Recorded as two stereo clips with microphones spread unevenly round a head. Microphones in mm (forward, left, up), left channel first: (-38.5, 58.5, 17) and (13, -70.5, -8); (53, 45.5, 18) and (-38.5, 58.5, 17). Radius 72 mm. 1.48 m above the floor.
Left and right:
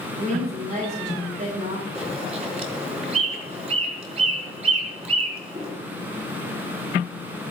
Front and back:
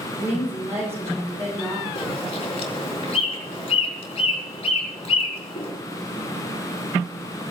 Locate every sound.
0.2 s a woman speaking: 115° right, 6 m
1.9 s a bird: 15° right, 4 m